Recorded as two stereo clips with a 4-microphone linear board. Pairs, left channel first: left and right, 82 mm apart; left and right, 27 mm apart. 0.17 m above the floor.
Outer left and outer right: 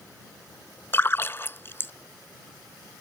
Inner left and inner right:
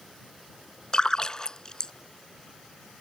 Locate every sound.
0.9 s a splash: 30° left (ahead or behind)